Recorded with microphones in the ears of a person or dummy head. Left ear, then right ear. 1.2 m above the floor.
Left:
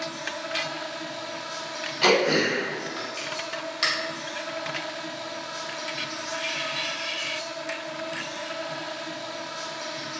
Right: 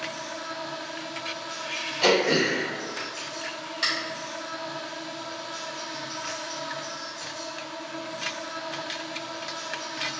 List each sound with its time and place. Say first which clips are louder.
0.0 s an insect: left 2 dB; centre (ahead or behind), 1.7 m
2.0 s throat clearing: left 1 dB; 10° left (ahead or behind), 1.9 m